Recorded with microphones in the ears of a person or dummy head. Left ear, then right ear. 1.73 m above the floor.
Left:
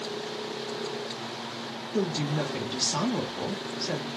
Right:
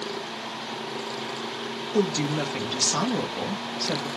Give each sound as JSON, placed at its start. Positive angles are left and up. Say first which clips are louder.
{"t": 1.9, "sound": "a woman speaking", "louder": "right 4 dB", "side_deg": -15, "distance_m": 0.8}